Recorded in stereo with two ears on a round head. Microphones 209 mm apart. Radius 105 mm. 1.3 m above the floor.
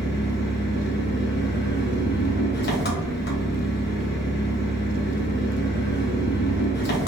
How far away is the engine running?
About 0.8 m.